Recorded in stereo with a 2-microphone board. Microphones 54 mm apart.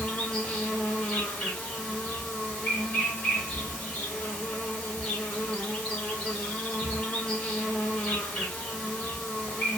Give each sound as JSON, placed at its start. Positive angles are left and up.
{"t": 0.0, "sound": "an insect", "side_deg": 20, "distance_m": 1.3}